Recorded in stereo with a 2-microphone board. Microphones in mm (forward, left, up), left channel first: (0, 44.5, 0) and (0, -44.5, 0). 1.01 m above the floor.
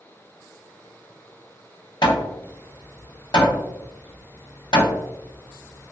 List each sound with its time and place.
2.0 s hammering: 60° left (ahead or behind), 0.9 m